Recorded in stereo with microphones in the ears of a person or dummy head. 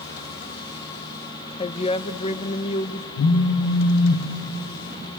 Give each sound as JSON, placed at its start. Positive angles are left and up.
{"t": 1.6, "sound": "a woman speaking", "side_deg": 25, "distance_m": 0.7}
{"t": 3.2, "sound": "a phone buzzing", "side_deg": 55, "distance_m": 1.0}